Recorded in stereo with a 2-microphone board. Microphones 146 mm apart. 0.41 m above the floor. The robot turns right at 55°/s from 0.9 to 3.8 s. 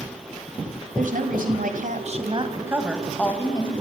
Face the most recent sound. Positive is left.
turn(degrees=40)